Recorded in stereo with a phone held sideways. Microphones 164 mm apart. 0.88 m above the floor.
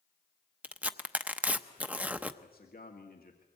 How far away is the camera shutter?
No camera shutter in this recording.